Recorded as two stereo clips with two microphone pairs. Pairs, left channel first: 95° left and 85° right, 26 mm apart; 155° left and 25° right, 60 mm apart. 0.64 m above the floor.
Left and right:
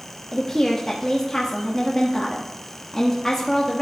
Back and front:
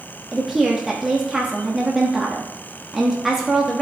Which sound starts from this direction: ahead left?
A woman speaking, at 0.3 s.